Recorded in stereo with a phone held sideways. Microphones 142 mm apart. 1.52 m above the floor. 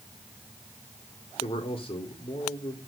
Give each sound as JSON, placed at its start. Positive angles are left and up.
{"t": 1.4, "sound": "a man speaking", "side_deg": 45, "distance_m": 3.5}